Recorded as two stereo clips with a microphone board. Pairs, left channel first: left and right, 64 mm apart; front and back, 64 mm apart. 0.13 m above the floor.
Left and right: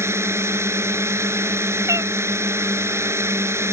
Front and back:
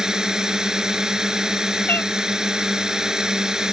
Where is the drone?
105° right.